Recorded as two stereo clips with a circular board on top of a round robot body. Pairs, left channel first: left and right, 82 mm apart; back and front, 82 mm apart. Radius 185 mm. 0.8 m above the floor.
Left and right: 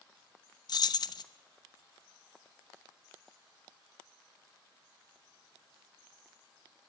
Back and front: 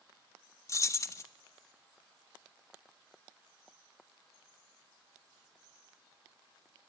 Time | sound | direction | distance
0.7 | keys jangling | 125° left | 1.0 m